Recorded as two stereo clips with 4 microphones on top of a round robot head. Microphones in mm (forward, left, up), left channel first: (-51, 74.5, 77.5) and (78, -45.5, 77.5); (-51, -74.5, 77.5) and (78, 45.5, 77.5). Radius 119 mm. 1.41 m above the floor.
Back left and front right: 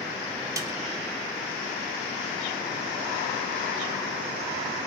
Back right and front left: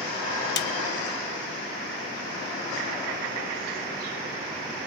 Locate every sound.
0.6 s a snare drum: 115° right, 0.7 m